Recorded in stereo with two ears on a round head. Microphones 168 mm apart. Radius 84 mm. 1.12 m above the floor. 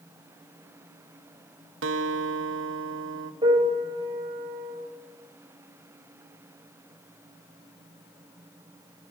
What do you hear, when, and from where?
1.8 s a guitar: 70° right (ahead or behind), 1.1 m
3.4 s a piano: 25° right (ahead or behind), 6 m